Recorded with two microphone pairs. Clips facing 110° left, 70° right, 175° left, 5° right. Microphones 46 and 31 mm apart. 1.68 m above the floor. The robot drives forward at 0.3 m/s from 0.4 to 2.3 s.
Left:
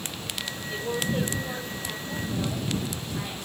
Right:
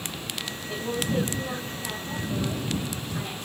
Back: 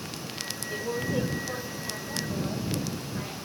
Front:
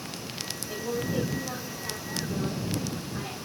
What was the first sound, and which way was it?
A woman speaking, 65° right.